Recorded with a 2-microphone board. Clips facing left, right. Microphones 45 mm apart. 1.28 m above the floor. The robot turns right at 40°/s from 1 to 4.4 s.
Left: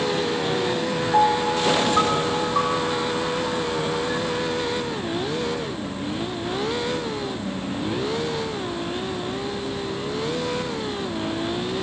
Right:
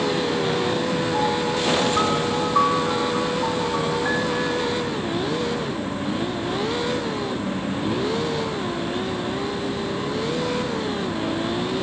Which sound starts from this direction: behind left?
A piano, at 1.1 s.